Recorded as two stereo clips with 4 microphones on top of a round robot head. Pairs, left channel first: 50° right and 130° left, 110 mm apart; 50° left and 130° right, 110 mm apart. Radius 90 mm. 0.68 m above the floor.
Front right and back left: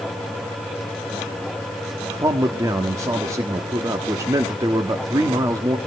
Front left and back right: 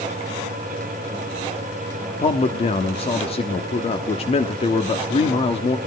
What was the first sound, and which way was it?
A man speaking, 70° left.